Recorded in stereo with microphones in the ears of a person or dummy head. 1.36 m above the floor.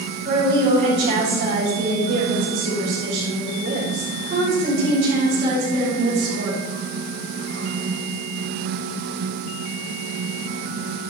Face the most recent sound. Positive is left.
turn(degrees=-45)  # may be behind; listen again after turning